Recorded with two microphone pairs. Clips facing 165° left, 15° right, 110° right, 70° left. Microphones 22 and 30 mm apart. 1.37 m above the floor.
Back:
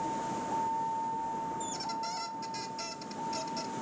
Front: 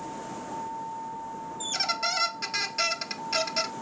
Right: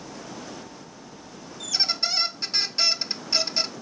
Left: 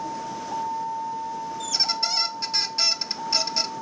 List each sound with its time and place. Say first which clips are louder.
0.0 s a vehicle: back 3 dB, left 8 dB; 95° left; by 3.8 s 75° left
1.6 s a squeak: front 7 dB, right 1 dB; 30° right